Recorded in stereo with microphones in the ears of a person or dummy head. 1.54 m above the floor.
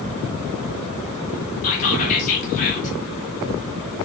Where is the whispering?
40° left (ahead or behind), 1.5 m.